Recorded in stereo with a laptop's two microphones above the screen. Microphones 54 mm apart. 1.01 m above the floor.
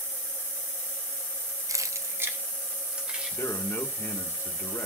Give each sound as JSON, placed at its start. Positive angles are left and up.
{"t": 1.7, "sound": "keys jangling", "side_deg": -85, "distance_m": 0.5}
{"t": 3.3, "sound": "a man speaking", "side_deg": 55, "distance_m": 1.4}